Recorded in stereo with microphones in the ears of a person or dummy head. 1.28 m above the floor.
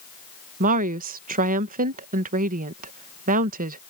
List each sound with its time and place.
0.6 s a woman speaking: 40° right (ahead or behind)